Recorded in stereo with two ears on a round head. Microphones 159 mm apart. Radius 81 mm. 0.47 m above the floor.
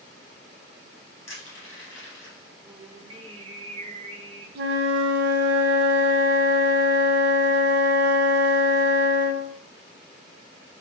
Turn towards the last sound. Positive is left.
turn(degrees=-65)  # may be behind; listen again after turning